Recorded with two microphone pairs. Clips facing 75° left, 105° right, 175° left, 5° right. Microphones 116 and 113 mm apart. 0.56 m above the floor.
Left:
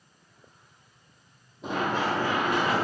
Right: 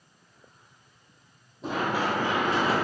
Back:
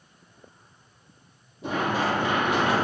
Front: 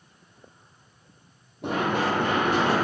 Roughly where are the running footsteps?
Ahead.